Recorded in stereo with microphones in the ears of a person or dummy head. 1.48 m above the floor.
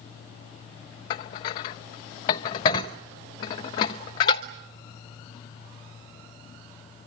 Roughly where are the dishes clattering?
Left.